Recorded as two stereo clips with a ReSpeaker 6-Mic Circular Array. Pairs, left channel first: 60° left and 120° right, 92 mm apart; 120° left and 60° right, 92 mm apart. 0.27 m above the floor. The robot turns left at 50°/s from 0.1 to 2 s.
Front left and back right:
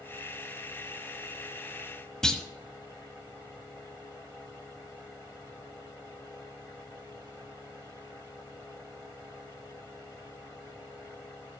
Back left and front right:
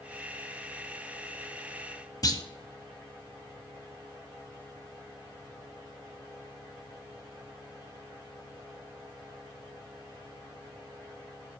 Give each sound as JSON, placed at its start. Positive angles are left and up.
{"t": 2.2, "sound": "a clunk", "azimuth_deg": 140, "distance_m": 0.8}